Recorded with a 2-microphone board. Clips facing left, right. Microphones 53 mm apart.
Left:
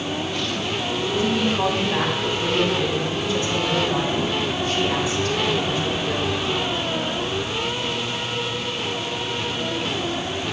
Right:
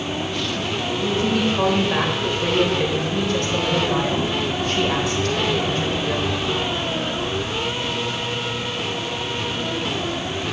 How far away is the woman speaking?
About 3.5 m.